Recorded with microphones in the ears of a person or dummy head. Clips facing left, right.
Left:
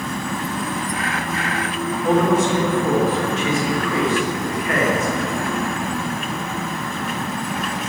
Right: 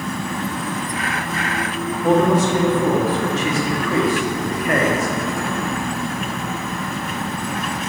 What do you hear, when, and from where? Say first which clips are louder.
2.0 s a man speaking: right 1 dB; 25° right (ahead or behind), 0.9 m